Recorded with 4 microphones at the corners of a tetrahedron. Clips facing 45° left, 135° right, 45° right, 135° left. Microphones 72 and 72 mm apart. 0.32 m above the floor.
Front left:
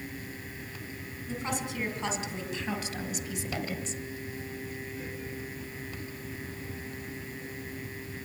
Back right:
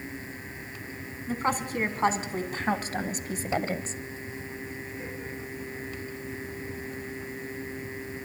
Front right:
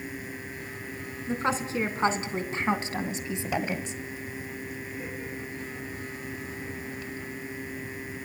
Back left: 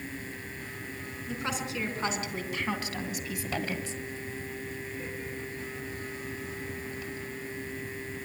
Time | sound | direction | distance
1.3 | a woman speaking | 95° right | 2.5 m